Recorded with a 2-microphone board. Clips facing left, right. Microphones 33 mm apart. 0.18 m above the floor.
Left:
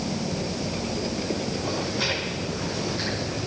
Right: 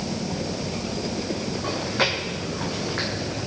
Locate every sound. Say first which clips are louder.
1.6 s chewing: right 4 dB; 65° right (ahead or behind), 4 m